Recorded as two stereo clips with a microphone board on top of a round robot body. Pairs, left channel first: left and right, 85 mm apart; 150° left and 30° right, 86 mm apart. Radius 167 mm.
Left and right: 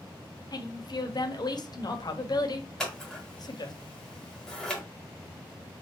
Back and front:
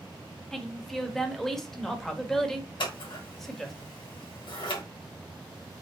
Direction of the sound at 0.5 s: 65° left.